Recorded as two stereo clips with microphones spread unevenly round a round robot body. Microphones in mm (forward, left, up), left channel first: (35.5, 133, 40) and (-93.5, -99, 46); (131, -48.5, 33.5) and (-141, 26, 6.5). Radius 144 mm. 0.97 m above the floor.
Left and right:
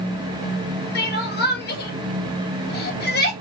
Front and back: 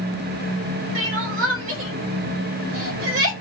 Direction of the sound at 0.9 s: 115° left.